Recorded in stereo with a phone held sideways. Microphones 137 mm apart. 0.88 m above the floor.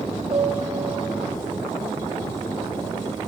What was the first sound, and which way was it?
A piano, 45° right (ahead or behind).